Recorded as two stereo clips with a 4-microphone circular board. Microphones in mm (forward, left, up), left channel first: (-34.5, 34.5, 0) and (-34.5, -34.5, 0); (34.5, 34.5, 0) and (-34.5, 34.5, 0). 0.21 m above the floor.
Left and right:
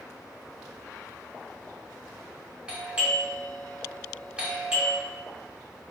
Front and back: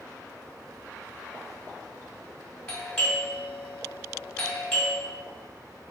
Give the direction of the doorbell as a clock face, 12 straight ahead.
2 o'clock.